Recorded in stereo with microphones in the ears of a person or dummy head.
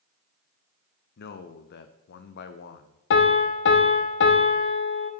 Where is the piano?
75° left (ahead or behind), 0.7 m.